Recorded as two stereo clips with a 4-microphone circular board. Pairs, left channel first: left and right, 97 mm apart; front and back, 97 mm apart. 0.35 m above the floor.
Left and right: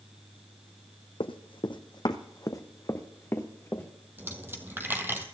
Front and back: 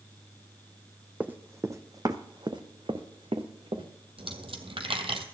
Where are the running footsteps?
105° left, 0.9 m; by 3.9 s 160° left, 1.7 m.